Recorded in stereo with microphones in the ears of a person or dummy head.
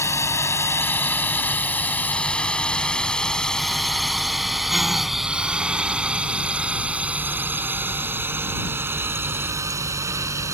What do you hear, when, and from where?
0.0 s a drone: 20° left (ahead or behind); by 10.5 s 10° right (ahead or behind)